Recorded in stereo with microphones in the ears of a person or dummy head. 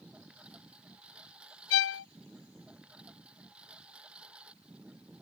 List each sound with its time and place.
0.0 s a lawn mower: centre (ahead or behind)
1.7 s a violin: 60° left (ahead or behind)